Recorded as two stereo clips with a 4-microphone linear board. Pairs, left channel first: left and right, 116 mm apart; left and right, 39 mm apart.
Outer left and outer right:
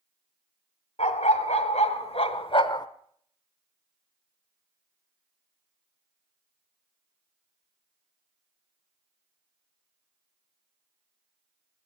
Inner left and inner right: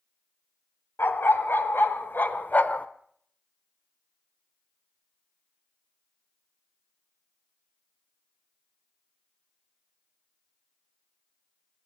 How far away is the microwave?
No microwave in this recording.